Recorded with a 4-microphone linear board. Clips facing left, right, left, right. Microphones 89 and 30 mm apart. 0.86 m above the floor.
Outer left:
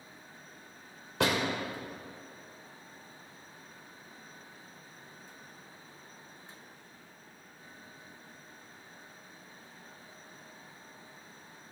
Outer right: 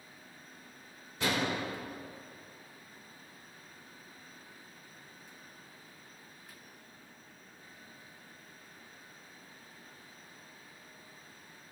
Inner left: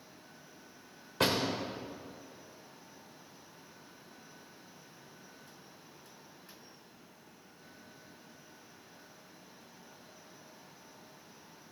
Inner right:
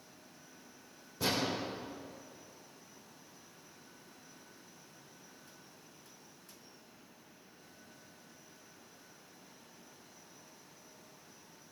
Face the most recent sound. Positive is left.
turn(degrees=75)  # may be behind; listen again after turning